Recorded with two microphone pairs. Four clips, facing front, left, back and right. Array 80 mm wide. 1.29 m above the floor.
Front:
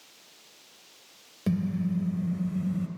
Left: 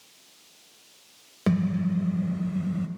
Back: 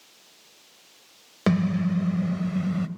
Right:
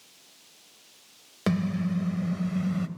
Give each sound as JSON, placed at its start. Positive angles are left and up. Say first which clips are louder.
{"t": 1.5, "sound": "a car horn", "louder": "left 2 dB, back 5 dB", "azimuth_deg": -170, "distance_m": 2.0}